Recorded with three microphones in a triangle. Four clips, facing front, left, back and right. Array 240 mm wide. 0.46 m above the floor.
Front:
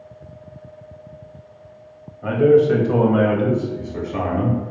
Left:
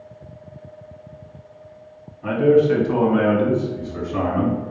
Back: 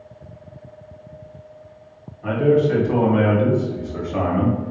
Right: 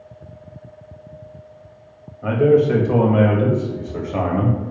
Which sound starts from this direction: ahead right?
A man speaking, at 2.2 s.